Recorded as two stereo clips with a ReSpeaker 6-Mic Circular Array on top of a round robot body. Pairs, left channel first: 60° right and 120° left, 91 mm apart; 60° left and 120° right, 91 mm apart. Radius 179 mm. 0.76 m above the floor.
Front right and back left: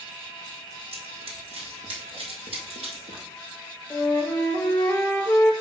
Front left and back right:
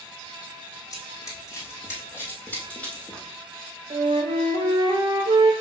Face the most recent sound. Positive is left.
turn(degrees=-130)